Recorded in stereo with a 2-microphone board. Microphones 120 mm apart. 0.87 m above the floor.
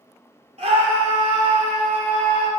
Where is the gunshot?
I don't hear a gunshot.